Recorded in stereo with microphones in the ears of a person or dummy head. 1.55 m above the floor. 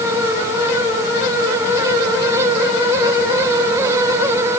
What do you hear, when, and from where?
Only background noise.